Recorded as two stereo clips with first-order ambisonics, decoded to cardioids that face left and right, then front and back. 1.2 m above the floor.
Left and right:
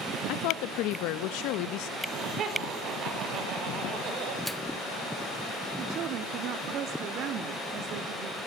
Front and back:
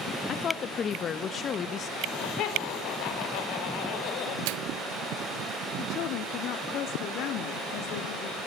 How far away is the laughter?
About 5 m.